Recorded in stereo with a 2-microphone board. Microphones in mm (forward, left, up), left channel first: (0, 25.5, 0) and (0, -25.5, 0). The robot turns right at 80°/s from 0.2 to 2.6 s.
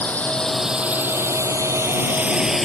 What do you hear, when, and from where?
0.0 s a drone: 30° left (ahead or behind); by 2.7 s centre (ahead or behind)